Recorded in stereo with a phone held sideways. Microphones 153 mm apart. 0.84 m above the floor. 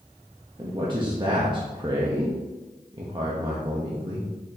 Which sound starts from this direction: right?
A man speaking, at 0.6 s.